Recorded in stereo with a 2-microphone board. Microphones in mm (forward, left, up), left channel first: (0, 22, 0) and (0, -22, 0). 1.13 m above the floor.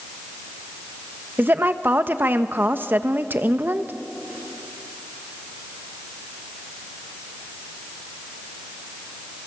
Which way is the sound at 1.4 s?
50° right (ahead or behind).